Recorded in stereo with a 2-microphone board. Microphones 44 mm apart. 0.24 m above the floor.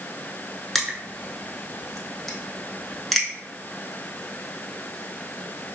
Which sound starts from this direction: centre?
Crushing, at 0.8 s.